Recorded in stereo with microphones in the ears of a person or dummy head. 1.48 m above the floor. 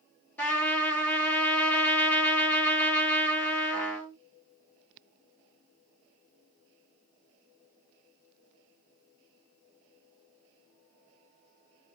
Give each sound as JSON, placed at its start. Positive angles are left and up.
{"t": 0.4, "sound": "a trumpet", "side_deg": 5, "distance_m": 1.1}